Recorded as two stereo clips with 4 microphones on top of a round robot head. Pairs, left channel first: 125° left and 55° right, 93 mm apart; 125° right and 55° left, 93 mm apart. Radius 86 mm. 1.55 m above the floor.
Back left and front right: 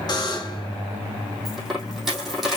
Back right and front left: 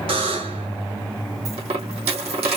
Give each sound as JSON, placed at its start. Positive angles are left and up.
{"t": 0.1, "sound": "a buzzer", "azimuth_deg": 80, "distance_m": 2.0}
{"t": 1.4, "sound": "a dropped coin", "azimuth_deg": 35, "distance_m": 2.5}